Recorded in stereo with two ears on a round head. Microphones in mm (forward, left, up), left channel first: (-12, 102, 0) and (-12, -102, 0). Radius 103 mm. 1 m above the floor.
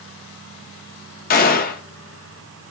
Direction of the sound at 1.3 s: 40° left (ahead or behind).